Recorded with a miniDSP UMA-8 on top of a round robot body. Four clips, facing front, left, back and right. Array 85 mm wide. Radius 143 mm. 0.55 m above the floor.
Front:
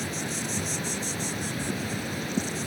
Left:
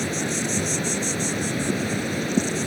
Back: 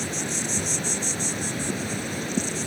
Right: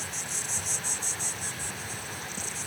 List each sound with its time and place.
0.0 s an insect: 100° left